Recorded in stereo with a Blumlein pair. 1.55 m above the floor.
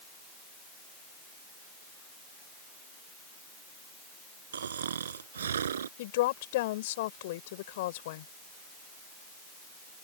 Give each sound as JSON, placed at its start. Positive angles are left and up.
{"t": 4.5, "sound": "snoring", "azimuth_deg": -65}
{"t": 6.0, "sound": "a woman speaking", "azimuth_deg": 55}